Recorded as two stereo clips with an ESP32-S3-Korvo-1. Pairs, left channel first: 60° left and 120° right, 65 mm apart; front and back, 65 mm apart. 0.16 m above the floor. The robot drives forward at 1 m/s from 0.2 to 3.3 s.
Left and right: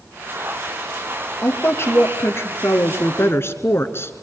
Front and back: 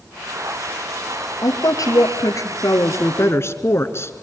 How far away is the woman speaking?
About 3.5 m.